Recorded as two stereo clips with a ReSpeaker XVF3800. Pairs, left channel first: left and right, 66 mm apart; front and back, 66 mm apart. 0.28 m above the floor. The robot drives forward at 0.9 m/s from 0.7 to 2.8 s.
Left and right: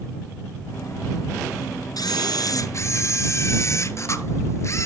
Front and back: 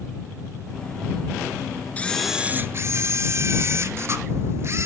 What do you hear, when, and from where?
2.0 s a camera shutter: 65° left, 0.6 m; by 4.9 s 135° left, 0.7 m